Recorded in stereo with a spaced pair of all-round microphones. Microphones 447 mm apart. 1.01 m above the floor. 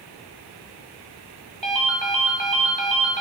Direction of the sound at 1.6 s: 70° right (ahead or behind).